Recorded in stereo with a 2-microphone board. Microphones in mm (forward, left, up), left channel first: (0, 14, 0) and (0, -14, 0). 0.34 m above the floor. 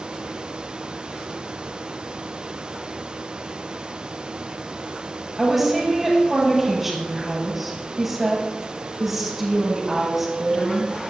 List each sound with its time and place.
5.4 s a woman speaking: 5° right (ahead or behind), 6.5 m